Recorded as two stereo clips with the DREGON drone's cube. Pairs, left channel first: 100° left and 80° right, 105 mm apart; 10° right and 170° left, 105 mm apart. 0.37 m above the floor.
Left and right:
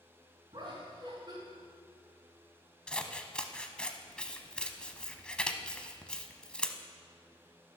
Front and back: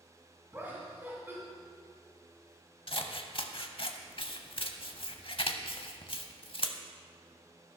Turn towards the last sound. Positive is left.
turn(degrees=20)